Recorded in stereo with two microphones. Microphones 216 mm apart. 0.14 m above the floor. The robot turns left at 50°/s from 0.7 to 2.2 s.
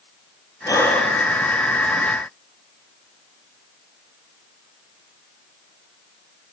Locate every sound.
0.7 s breathing: 15° left (ahead or behind), 4 m; by 1.2 s 5° right (ahead or behind), 4 m